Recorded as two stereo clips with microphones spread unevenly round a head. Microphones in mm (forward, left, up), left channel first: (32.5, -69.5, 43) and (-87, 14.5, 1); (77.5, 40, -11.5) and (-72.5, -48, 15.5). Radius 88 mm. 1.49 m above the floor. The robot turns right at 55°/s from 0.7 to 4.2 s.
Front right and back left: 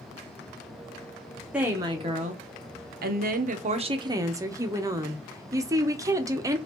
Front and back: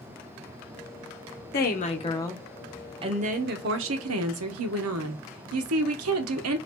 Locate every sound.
1.5 s a woman speaking: 65° left, 0.8 m; by 6.6 s 150° right, 0.8 m